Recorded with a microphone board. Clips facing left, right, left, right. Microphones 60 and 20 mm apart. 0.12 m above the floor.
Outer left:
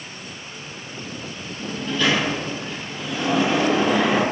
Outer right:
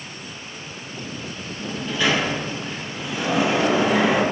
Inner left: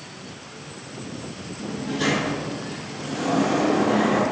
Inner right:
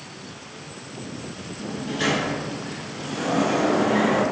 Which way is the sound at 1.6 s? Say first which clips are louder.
Outer left 1 dB, even; 15° right (ahead or behind).